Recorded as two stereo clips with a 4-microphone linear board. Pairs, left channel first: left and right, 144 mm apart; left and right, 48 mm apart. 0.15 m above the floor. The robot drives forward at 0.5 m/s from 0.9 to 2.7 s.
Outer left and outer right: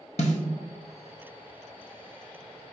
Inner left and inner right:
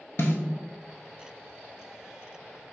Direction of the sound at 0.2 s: 55° left (ahead or behind).